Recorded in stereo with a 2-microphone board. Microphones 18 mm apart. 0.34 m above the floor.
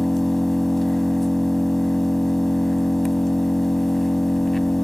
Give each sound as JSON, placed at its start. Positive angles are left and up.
{"t": 0.0, "sound": "an engine running", "side_deg": 10, "distance_m": 1.0}